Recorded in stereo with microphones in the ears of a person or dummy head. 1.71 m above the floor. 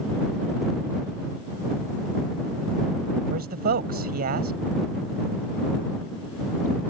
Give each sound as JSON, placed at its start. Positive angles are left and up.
{"t": 3.3, "sound": "a man speaking", "side_deg": -50}